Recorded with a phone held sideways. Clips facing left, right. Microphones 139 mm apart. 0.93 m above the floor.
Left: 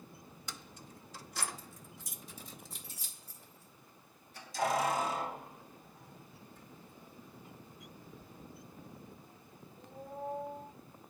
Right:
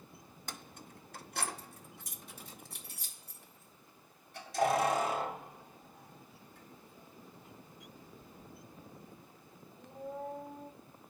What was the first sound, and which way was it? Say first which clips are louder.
Keys jangling: right 2 dB; 50° right (ahead or behind).